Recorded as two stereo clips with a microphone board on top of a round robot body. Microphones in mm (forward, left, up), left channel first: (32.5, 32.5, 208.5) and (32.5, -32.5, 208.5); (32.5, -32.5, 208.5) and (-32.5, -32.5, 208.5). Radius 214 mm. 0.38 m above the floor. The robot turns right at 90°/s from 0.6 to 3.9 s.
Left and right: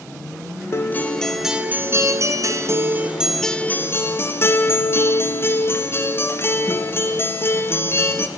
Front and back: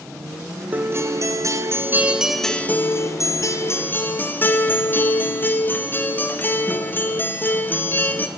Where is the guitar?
125° left, 1.8 m; by 8.3 s 50° left, 1.8 m.